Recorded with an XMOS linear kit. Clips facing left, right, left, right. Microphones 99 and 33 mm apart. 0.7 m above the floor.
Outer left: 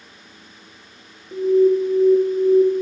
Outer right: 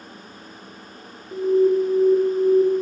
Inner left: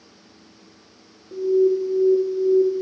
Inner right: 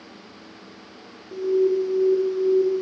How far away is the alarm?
About 0.7 m.